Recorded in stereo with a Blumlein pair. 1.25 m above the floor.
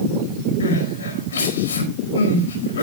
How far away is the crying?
About 4.5 m.